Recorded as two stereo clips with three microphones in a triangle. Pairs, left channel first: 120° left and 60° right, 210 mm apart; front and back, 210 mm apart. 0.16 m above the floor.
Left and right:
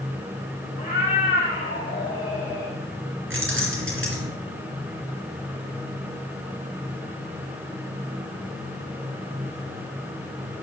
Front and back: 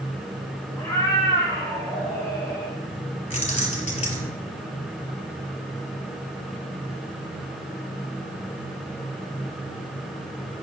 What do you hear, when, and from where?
0.8 s a cat meowing: 80° left, 4.5 m; by 2.8 s 70° left, 3 m
3.3 s keys jangling: 50° right, 2.5 m